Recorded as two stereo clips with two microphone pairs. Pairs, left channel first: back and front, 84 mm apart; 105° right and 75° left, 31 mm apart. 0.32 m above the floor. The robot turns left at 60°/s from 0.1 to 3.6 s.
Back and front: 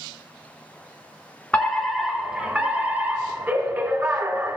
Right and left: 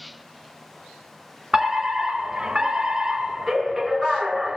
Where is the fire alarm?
125° left, 1.9 m; by 4.6 s straight ahead, 1.9 m.